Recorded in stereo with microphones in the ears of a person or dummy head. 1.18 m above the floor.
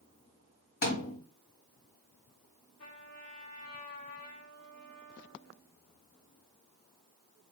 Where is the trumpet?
40° left (ahead or behind), 2.5 m.